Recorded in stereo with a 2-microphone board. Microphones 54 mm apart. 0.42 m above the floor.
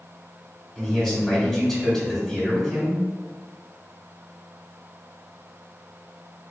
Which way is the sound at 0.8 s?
10° left (ahead or behind).